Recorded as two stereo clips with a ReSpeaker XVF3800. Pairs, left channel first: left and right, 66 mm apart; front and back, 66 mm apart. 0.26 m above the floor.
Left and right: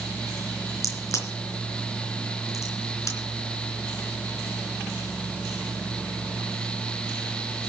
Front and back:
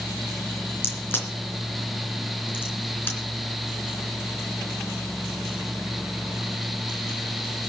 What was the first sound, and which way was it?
A crack, 55° left.